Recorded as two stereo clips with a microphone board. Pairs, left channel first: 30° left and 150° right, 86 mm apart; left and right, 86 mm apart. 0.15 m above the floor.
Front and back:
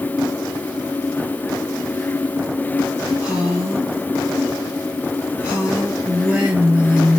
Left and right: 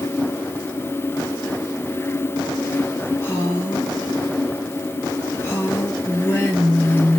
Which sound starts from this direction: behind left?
A woman speaking, at 3.2 s.